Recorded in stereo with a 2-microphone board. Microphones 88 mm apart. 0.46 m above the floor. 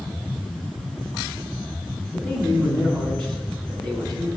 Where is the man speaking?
5° left (ahead or behind), 4.5 m.